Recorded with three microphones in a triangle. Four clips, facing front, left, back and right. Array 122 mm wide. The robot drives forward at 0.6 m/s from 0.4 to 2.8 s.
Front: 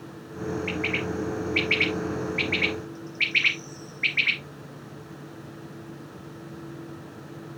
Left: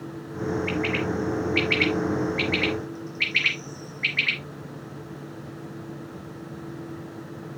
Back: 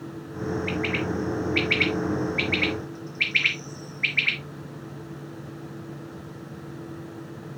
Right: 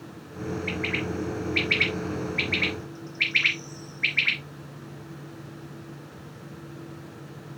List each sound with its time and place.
0.7 s a bird: 75° right, 4.5 m; by 4.4 s 90° right, 4.5 m